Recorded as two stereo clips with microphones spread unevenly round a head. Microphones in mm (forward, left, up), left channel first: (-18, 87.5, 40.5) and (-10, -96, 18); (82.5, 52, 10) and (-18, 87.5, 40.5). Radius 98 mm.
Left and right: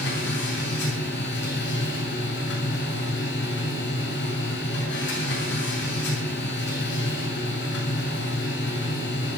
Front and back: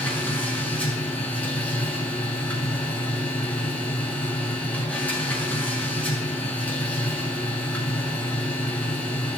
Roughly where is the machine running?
Ahead left.